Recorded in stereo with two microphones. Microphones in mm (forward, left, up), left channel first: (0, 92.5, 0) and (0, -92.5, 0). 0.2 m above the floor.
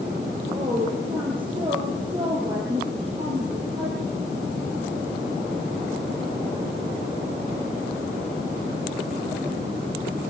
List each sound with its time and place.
0.5 s a woman speaking: 25° right (ahead or behind), 4.5 m